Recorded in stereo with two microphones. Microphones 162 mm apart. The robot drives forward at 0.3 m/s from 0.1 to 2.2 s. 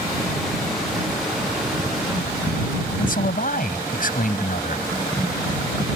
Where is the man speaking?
65° left (ahead or behind).